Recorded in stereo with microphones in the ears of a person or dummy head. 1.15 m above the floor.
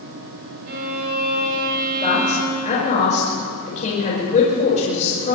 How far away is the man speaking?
About 5 m.